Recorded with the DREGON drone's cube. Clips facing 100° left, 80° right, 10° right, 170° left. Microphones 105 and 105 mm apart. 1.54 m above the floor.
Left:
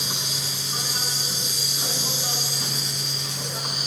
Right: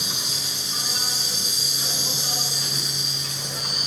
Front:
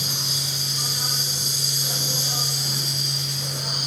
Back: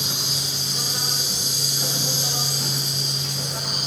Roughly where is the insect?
Behind left.